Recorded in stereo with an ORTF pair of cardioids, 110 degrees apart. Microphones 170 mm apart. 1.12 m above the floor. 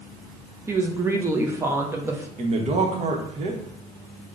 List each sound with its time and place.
0.7 s a woman speaking: 15° right, 0.5 m
2.4 s a man speaking: 40° right, 0.9 m